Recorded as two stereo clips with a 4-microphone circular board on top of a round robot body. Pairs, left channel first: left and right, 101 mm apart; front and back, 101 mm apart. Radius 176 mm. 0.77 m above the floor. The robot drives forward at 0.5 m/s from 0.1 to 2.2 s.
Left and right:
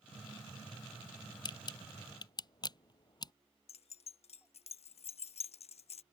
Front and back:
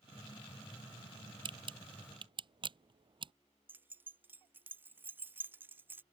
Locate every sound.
1.4 s a camera shutter: 140° left
3.7 s keys jangling: 110° left